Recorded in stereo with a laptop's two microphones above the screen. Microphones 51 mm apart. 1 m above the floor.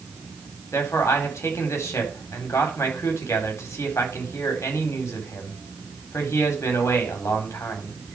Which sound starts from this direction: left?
A man speaking, at 0.7 s.